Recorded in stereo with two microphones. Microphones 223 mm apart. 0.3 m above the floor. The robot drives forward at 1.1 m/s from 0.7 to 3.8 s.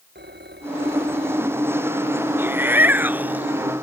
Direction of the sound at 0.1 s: 50° right (ahead or behind).